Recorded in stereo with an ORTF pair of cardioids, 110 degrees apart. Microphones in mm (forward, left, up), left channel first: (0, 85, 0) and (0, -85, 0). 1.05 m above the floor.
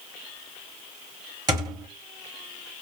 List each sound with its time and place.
1.5 s a thud: 25° right, 1.1 m